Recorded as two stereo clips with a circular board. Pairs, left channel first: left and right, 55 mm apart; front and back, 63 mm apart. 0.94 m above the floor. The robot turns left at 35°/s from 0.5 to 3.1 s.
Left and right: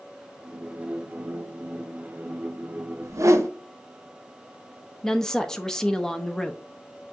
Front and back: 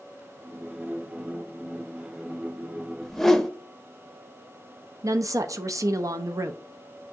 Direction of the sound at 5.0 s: 165° left.